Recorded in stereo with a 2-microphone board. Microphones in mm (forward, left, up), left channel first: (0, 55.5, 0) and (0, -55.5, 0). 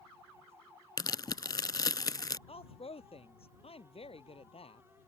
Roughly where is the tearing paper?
Left.